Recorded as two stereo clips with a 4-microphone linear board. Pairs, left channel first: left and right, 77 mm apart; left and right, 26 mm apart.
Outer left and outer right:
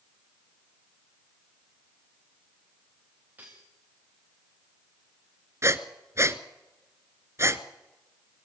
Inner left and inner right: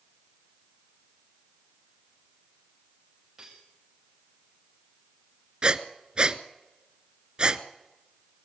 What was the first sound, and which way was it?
Cutlery clinking, 20° right (ahead or behind).